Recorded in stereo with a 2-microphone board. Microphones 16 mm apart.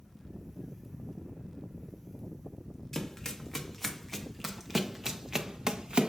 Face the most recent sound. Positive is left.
turn(degrees=-60)  # may be behind; listen again after turning